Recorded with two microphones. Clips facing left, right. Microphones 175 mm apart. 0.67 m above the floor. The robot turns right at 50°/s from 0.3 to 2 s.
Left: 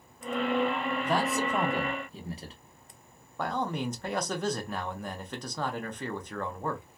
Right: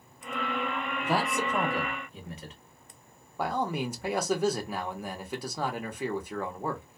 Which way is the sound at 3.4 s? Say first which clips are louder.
Right 1 dB; 10° right (ahead or behind).